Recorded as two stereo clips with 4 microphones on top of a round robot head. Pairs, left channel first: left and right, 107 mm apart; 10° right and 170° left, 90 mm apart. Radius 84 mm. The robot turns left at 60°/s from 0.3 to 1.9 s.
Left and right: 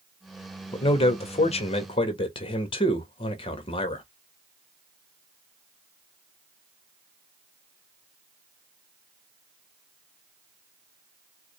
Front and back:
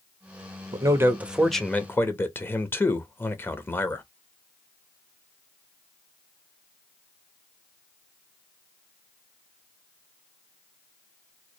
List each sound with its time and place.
0.7 s a man speaking: 125° left, 1.2 m; by 4.0 s 55° left, 1.2 m